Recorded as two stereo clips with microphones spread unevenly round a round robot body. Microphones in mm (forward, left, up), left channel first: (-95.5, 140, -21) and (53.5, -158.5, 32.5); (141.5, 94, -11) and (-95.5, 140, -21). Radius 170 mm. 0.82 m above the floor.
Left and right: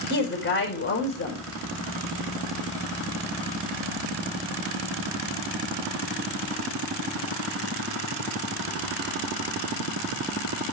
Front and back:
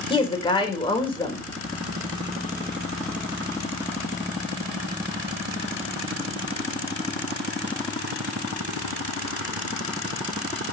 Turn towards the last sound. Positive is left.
turn(degrees=60)